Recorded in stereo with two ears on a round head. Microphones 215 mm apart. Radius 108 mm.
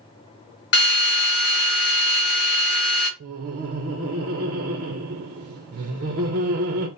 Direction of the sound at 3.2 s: 45° right (ahead or behind).